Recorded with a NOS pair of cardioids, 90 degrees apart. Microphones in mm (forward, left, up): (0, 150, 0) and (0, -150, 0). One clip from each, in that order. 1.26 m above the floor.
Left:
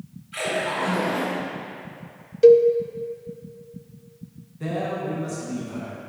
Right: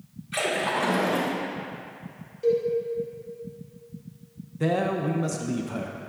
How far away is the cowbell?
About 0.6 m.